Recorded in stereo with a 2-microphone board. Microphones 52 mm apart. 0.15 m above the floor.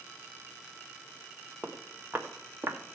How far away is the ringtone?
I don't hear a ringtone.